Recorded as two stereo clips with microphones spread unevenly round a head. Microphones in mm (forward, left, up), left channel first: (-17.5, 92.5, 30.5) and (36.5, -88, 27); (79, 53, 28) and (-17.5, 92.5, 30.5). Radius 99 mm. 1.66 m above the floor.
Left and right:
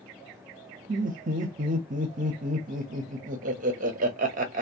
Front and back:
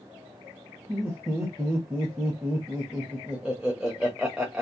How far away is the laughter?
About 0.6 m.